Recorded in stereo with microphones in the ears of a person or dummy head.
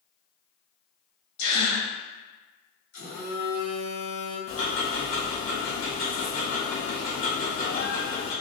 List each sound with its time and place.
1.4 s a gasp: 65° left (ahead or behind), 1.0 m
2.9 s a phone buzzing: 70° left (ahead or behind), 1.7 m
4.5 s ticking: 60° left (ahead or behind), 1.3 m